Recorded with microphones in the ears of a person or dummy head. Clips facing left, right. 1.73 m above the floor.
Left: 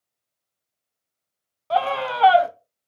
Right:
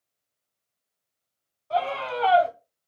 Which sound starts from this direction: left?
A scream, at 1.7 s.